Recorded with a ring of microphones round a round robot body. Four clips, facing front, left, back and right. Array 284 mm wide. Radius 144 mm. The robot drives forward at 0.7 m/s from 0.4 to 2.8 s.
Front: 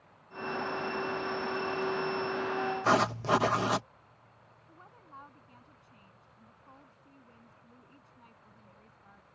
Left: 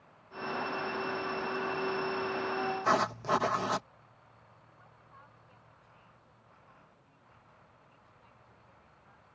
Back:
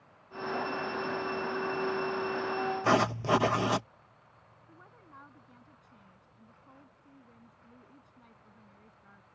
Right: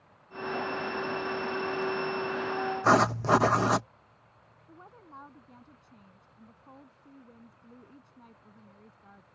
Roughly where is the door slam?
No door slam in this recording.